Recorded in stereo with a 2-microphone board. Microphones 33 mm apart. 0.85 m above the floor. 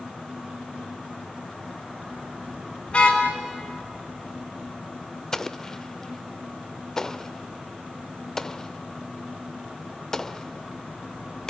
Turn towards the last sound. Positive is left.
turn(degrees=15)  # may be behind; listen again after turning